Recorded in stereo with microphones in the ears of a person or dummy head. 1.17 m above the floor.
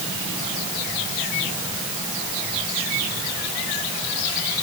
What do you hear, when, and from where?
Only background noise.